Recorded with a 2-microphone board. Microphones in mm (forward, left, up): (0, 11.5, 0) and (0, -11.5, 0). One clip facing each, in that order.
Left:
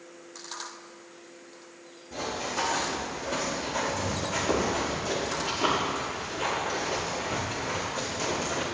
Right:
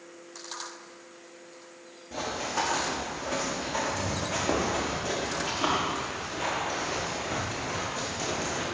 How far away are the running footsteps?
About 5 m.